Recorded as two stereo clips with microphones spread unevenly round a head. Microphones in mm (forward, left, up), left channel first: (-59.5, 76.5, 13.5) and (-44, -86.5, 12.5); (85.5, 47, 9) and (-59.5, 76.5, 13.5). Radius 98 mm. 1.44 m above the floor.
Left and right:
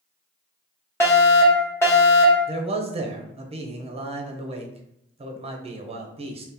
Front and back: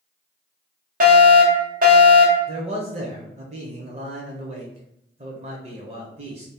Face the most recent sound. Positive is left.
turn(degrees=-135)